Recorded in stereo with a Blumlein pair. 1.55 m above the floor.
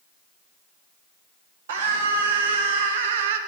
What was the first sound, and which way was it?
A scream, 60° right.